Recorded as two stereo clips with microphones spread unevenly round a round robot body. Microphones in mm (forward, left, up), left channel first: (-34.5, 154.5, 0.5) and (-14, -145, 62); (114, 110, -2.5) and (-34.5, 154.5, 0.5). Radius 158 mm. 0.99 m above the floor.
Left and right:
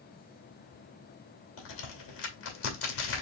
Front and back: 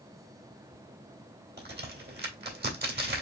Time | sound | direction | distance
1.6 | a crack | 145° left | 2 m